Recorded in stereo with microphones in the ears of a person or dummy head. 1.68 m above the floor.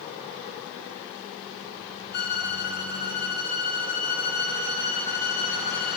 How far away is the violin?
About 2 m.